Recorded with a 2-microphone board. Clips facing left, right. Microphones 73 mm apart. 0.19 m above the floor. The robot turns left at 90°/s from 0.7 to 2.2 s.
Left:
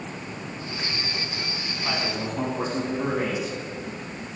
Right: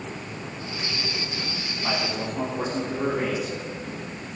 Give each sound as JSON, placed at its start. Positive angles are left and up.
{"t": 1.8, "sound": "a man speaking", "azimuth_deg": -150, "distance_m": 6.5}